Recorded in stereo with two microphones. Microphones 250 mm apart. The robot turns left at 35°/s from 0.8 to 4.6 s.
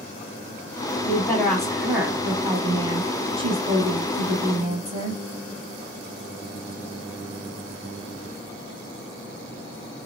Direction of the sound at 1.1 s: 10° left (ahead or behind).